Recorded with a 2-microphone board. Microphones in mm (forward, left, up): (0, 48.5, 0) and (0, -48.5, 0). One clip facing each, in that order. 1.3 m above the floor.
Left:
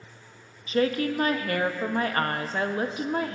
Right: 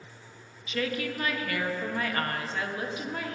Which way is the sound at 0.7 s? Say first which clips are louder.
Left 7 dB; 40° left (ahead or behind).